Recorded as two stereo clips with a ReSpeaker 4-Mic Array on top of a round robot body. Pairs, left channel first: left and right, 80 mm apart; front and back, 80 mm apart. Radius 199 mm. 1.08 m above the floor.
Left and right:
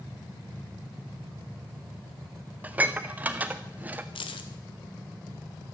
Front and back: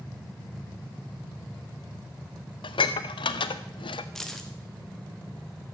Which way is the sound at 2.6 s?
20° right.